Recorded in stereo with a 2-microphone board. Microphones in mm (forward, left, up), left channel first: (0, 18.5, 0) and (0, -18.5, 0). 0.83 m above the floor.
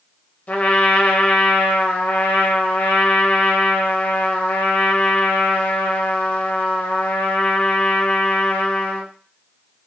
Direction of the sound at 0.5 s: 45° left (ahead or behind).